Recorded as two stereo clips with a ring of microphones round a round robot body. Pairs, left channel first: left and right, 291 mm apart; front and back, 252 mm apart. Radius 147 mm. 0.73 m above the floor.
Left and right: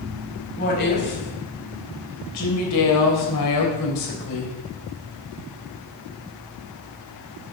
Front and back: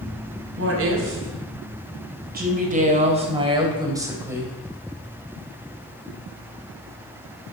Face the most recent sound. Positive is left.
turn(degrees=95)